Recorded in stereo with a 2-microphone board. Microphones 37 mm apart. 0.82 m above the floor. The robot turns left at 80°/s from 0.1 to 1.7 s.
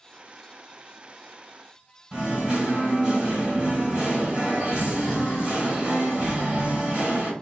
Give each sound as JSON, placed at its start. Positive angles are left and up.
{"t": 2.1, "sound": "singing", "side_deg": -15, "distance_m": 1.9}